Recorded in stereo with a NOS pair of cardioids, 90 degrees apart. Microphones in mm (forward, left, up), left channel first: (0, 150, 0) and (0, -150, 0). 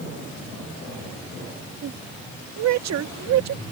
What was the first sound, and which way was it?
A woman speaking, 60° right.